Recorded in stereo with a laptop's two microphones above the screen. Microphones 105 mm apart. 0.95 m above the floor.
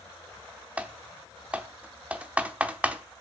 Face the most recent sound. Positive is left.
turn(degrees=-10)  # may be behind; listen again after turning